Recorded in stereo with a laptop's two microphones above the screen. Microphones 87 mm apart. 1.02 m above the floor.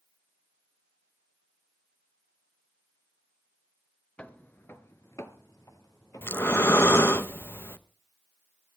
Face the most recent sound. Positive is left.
turn(degrees=25)  # may be behind; listen again after turning